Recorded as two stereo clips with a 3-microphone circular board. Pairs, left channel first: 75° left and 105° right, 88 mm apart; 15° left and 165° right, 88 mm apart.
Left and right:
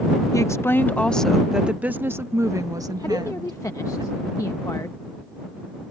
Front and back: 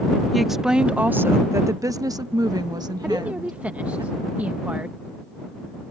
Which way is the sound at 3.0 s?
125° left.